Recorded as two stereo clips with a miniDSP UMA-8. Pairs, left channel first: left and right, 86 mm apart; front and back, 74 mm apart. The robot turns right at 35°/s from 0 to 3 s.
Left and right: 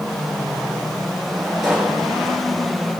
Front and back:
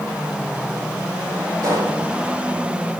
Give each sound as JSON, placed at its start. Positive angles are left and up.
{"t": 1.6, "sound": "a pop", "azimuth_deg": -175, "distance_m": 5.5}